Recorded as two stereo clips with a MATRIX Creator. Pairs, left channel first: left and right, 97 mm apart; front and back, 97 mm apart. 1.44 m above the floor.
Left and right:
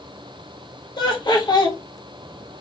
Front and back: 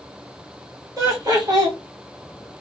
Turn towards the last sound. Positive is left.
turn(degrees=130)